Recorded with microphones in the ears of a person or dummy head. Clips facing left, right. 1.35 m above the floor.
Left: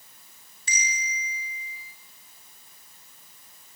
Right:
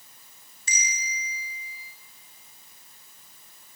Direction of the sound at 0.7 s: 40° right (ahead or behind).